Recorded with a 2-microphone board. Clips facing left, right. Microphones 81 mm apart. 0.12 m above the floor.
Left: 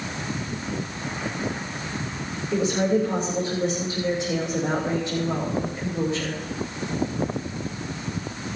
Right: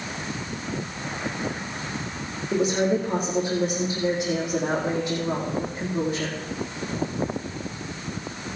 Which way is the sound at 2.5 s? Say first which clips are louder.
Even; 40° right (ahead or behind).